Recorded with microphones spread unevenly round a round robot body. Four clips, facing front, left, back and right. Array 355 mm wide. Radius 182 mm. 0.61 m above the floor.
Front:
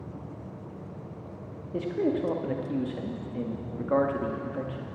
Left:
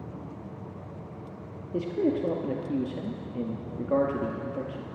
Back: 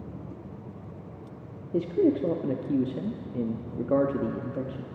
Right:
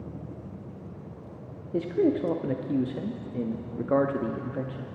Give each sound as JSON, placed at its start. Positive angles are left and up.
{"t": 1.7, "sound": "a man speaking", "azimuth_deg": -165, "distance_m": 0.6}